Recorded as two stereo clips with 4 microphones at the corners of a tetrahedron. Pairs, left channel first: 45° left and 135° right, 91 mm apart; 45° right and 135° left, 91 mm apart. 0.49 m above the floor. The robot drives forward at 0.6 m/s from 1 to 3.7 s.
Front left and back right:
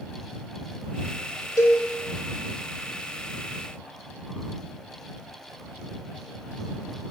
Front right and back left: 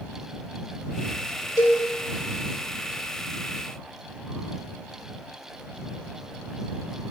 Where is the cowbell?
5° right, 1.3 m.